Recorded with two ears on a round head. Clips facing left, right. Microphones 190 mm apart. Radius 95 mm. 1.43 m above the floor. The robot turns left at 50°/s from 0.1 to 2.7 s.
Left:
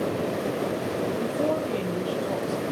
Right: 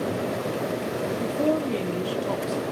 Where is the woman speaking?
5° right, 3.5 m; by 2.6 s 75° right, 3.5 m.